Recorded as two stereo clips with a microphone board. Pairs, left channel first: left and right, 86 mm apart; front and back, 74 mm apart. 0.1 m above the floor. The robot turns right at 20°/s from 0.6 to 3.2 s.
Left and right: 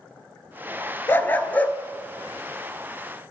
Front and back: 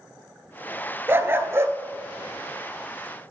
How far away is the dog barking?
About 0.5 m.